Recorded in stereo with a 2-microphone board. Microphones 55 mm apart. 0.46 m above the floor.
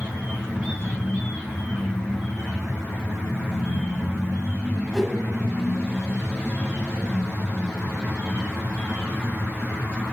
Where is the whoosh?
Centre (ahead or behind), 1.1 m.